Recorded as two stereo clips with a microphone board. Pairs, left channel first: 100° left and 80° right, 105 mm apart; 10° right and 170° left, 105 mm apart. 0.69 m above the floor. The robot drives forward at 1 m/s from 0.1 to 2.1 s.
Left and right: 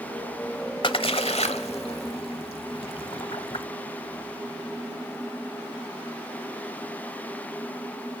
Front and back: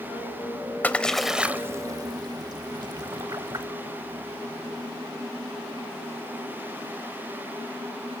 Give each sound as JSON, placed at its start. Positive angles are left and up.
{"t": 0.8, "sound": "a splash", "azimuth_deg": 60, "distance_m": 1.2}